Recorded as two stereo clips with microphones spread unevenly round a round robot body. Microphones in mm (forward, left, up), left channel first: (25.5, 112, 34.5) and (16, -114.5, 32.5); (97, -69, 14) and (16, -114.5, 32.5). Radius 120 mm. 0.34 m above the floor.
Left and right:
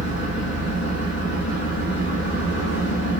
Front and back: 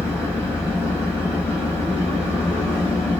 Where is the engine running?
125° left, 2.5 m.